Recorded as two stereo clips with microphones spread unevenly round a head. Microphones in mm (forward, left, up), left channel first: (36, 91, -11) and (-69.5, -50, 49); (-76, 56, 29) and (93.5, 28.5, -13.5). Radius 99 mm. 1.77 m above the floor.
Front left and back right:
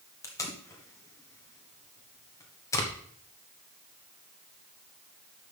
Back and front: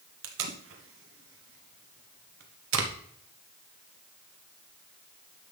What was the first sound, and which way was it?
Tape being pulled, 20° right.